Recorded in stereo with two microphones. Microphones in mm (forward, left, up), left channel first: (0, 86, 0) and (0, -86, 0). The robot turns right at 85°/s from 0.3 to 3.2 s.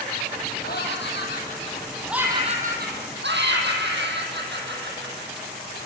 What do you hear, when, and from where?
0.6 s laughter: 60° left, 5.5 m; by 5.5 s 85° right, 5.5 m